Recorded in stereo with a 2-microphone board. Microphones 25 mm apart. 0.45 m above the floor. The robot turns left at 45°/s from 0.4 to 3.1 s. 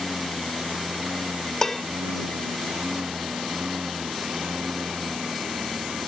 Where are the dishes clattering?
20° left (ahead or behind); by 1.8 s 10° left (ahead or behind).